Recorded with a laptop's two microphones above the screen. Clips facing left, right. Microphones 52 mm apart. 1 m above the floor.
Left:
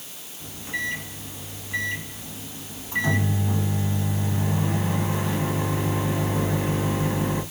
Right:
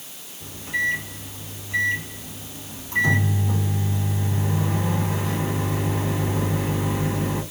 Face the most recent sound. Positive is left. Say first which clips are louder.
# right 5 dB
turn(degrees=5)  # may be behind; listen again after turning